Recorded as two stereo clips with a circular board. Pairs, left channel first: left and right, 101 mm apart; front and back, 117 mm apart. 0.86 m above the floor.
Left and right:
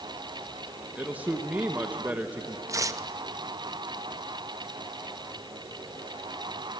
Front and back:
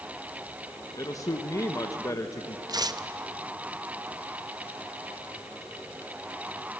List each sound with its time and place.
0.9 s a man speaking: 25° right, 0.9 m
2.7 s tearing paper: 135° right, 0.6 m